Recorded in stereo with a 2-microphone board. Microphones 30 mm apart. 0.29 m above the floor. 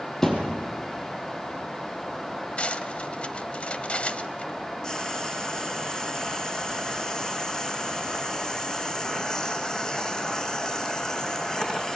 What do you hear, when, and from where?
0.2 s a thud: 15° left (ahead or behind), 4 m
2.6 s cutlery clinking: 35° left (ahead or behind), 1.0 m
4.8 s frying: 20° left (ahead or behind), 2.5 m